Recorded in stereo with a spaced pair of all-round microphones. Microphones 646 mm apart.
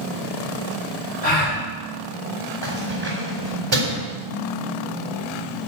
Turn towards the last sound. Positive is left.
turn(degrees=-45)  # may be behind; listen again after turning